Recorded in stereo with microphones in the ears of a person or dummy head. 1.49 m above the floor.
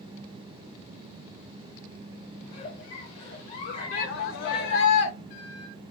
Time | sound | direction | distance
2.5 | a giggle | 35° left (ahead or behind) | 1.0 m
3.9 | a shout | 55° left (ahead or behind) | 0.7 m